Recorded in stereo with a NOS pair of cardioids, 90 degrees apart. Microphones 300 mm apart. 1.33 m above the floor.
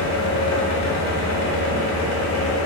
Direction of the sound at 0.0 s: 70° left.